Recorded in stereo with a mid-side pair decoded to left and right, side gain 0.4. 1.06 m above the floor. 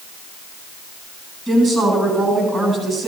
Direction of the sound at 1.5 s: 40° right.